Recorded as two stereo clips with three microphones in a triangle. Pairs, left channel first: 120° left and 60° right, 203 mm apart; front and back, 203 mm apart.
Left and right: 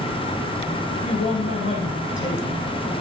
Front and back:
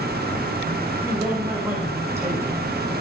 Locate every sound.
0.9 s a man speaking: 105° left, 5.5 m